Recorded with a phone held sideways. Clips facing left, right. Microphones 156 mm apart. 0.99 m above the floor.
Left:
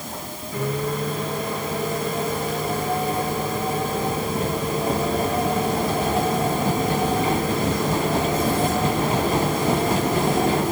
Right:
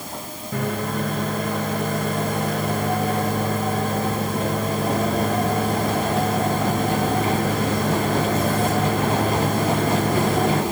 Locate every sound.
0.5 s a microwave: 60° right (ahead or behind), 4.5 m